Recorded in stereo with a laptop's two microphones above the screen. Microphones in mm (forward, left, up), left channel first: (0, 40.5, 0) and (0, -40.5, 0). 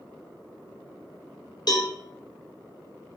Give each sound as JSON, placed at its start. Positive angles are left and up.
{"t": 1.7, "sound": "a cowbell", "side_deg": 55, "distance_m": 0.6}